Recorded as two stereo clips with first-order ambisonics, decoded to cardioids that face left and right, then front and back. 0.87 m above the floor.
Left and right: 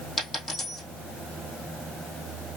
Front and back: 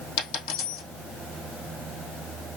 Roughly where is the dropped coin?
Ahead.